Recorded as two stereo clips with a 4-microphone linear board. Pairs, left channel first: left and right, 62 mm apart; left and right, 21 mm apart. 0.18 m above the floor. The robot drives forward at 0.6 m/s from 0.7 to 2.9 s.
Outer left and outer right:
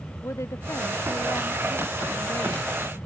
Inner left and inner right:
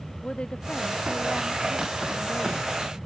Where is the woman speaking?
50° left (ahead or behind).